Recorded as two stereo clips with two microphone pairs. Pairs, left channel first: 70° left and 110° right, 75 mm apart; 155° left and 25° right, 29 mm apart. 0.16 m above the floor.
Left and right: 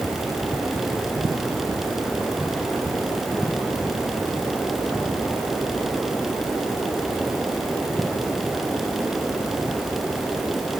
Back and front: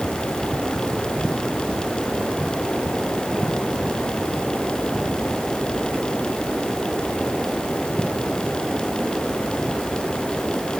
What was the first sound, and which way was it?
Only background noise.